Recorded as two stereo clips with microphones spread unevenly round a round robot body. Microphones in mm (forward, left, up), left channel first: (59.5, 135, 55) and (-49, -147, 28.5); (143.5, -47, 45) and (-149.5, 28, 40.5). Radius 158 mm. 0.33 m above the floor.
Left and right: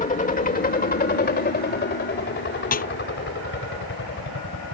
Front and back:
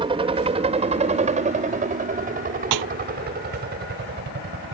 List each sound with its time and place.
0.0 s a helicopter: 110° left; by 4.7 s 115° left
2.7 s a snare drum: 135° left